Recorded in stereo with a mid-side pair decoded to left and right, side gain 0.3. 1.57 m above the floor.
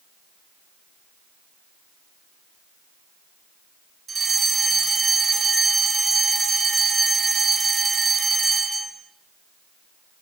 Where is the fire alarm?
60° right, 8.5 m.